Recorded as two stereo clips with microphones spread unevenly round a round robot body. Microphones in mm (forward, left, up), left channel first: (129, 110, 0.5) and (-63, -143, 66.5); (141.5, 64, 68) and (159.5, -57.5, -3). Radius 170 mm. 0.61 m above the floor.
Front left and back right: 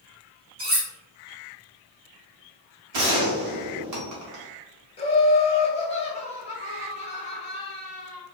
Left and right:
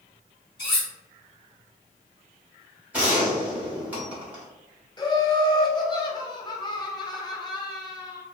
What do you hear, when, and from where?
0.6 s cutlery clinking: 175° left, 1.4 m
2.9 s a gunshot: 105° right, 0.9 m
5.0 s laughter: 15° left, 0.9 m